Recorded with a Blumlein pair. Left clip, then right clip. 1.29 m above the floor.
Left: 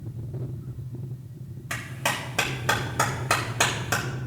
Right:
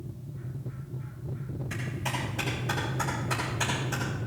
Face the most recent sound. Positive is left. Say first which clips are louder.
# left 7 dB
turn(degrees=55)